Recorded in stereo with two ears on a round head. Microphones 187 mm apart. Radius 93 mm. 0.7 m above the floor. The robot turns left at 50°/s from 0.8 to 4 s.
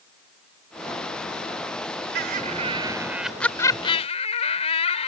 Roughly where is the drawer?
No drawer in this recording.